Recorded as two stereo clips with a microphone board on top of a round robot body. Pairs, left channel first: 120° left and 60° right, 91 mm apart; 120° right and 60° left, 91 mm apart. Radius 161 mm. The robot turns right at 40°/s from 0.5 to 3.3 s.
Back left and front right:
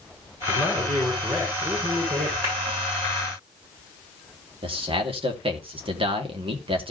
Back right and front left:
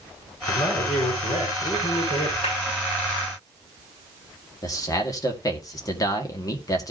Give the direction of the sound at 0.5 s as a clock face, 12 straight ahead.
5 o'clock.